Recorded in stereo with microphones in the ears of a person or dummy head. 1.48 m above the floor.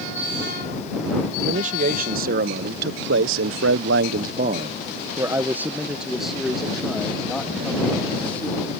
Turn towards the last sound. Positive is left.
turn(degrees=10)  # may be behind; listen again after turning